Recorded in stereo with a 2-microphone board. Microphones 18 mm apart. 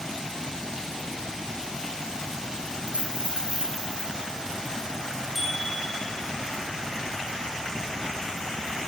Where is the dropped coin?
85° right, 9 m.